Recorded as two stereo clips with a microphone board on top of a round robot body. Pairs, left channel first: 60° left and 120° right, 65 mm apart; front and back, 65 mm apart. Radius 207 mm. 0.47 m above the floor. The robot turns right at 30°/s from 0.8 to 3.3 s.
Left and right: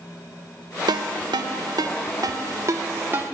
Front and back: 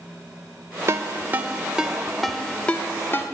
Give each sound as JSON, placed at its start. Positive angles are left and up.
{"t": 0.9, "sound": "a ringtone", "azimuth_deg": -130, "distance_m": 0.7}